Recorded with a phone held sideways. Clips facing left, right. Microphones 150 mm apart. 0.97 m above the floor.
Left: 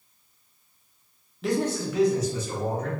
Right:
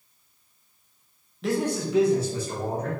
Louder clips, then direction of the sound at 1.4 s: Even; centre (ahead or behind).